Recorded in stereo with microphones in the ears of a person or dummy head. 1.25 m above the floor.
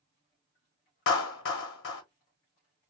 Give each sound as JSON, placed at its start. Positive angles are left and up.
{"t": 1.1, "sound": "a clap", "side_deg": 65, "distance_m": 1.1}